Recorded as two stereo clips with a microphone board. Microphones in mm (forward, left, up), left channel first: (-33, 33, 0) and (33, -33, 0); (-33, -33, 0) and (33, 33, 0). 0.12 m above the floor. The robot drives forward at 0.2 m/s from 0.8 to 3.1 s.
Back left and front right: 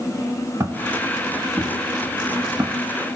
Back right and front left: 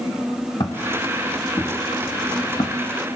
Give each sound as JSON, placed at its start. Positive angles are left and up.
{"t": 0.6, "sound": "footsteps", "azimuth_deg": -100, "distance_m": 2.5}